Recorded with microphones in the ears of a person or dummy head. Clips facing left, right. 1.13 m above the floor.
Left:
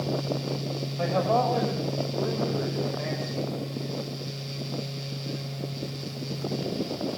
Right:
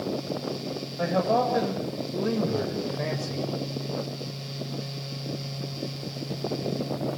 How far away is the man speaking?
About 5.5 m.